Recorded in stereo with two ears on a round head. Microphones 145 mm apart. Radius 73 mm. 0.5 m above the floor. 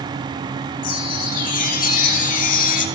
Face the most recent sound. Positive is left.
turn(degrees=50)  # may be behind; listen again after turning